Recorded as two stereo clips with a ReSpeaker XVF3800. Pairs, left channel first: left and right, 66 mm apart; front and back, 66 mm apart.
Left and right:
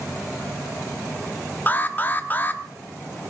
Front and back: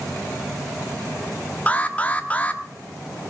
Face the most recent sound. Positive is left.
turn(degrees=50)